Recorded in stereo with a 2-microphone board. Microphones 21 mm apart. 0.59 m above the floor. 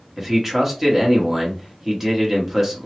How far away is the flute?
No flute in this recording.